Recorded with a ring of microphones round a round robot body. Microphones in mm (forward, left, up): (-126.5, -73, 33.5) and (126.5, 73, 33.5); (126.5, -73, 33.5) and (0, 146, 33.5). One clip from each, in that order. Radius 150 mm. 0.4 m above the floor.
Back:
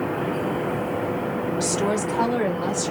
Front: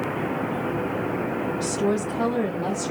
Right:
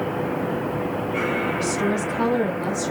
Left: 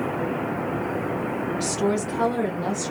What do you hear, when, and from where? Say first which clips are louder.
1.6 s a woman speaking: back 2 dB, right 1 dB; 170° left, 1.8 m; by 2.9 s 135° right, 1.7 m